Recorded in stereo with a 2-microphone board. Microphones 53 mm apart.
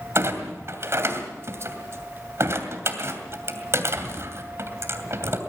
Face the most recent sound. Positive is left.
turn(degrees=-55)  # may be behind; listen again after turning